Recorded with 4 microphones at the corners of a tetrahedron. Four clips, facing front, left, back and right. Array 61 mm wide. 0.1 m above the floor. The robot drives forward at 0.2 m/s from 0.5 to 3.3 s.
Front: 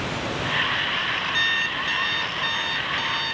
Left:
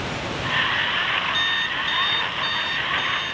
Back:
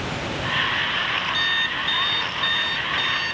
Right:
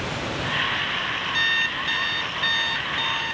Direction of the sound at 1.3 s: 45° right.